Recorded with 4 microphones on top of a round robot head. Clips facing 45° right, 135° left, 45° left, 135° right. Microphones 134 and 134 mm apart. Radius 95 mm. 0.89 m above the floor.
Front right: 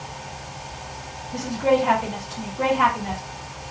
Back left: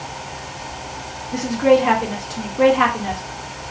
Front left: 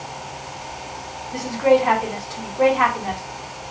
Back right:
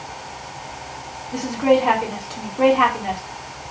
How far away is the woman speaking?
About 3 m.